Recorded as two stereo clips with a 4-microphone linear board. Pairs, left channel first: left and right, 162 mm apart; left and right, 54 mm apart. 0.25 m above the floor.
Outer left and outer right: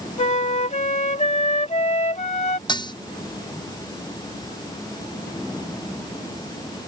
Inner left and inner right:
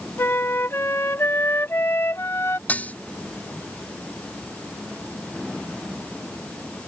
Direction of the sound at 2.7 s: 30° left (ahead or behind).